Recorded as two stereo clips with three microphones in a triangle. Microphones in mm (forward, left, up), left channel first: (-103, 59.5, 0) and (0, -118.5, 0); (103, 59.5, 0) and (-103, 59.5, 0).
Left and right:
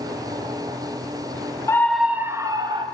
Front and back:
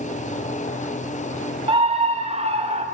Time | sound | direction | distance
1.7 | a scream | 175° left | 1.0 m